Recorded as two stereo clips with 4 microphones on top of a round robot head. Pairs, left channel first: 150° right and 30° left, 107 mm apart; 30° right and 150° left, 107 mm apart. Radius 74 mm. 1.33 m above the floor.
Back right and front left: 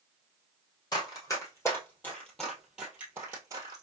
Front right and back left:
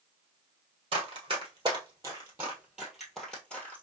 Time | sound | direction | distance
0.9 | running footsteps | 170° left | 1.6 m